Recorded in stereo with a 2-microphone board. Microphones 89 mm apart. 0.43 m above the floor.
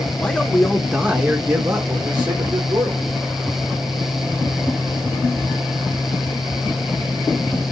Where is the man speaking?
15° left (ahead or behind), 0.8 m; by 3.1 s 50° right (ahead or behind), 1.3 m.